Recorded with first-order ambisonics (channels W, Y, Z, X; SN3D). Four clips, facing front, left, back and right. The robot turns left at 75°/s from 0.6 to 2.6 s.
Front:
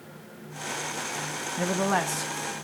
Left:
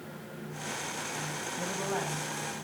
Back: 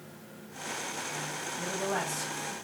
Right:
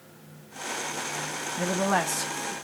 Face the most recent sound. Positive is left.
turn(degrees=-95)